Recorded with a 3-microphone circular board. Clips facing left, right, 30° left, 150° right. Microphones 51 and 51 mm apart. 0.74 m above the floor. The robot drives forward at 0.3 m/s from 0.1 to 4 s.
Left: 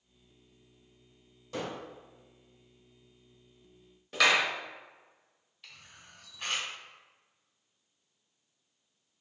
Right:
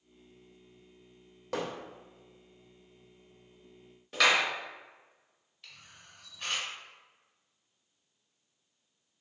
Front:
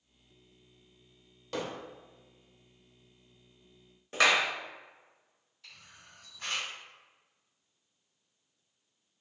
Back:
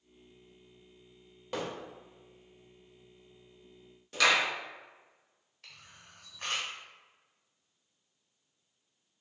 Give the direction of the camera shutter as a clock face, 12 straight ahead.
6 o'clock.